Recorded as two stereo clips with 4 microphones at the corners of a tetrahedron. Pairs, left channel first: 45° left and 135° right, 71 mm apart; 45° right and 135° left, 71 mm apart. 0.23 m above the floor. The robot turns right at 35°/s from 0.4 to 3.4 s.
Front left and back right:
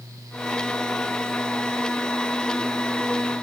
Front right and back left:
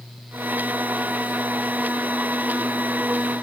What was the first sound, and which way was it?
Only background noise.